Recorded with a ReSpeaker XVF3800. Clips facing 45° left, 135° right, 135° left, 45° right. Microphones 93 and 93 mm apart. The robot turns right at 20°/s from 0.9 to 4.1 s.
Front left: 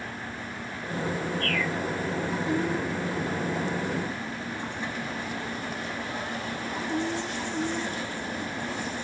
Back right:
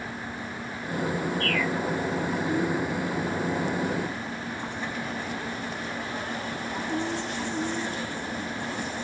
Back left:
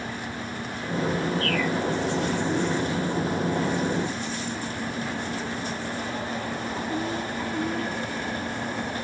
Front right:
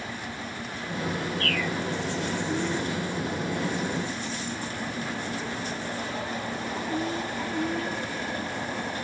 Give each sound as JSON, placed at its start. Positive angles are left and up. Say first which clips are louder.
{"t": 1.4, "sound": "a bird", "louder": "back right 2 dB, back left 3 dB", "azimuth_deg": -40, "distance_m": 0.9}